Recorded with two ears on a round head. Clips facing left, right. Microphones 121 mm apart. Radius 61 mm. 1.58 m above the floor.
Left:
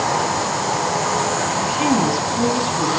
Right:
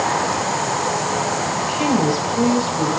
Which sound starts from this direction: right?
A woman speaking, at 1.6 s.